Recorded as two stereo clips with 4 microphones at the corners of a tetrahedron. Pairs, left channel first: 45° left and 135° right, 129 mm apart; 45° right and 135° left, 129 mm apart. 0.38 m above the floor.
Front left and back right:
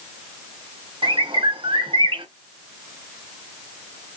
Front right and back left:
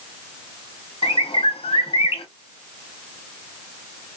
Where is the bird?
85° right, 0.7 m.